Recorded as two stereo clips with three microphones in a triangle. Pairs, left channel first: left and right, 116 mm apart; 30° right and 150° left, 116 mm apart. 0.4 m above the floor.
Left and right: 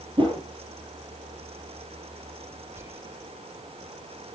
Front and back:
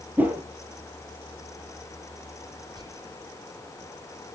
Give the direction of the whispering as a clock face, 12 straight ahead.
5 o'clock.